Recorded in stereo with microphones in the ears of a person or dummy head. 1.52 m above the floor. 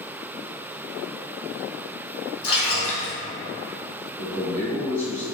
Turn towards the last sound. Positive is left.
turn(degrees=15)  # may be behind; listen again after turning